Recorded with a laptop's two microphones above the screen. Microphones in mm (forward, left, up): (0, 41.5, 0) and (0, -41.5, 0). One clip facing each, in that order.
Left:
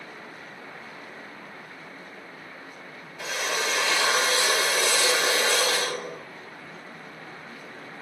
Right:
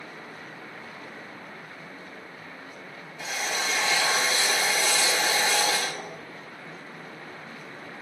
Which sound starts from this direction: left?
A drill, at 3.2 s.